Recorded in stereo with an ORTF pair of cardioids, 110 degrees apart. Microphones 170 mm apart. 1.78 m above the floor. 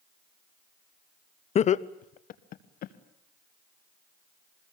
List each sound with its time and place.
1.6 s laughter: 40° left, 0.8 m; by 2.9 s 65° left, 2 m